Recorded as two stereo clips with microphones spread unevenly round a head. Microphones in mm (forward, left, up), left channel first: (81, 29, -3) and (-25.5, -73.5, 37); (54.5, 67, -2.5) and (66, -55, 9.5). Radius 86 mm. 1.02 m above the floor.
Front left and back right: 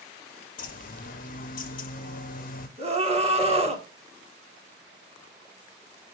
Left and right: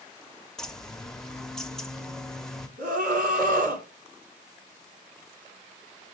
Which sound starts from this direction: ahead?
A bird, at 0.6 s.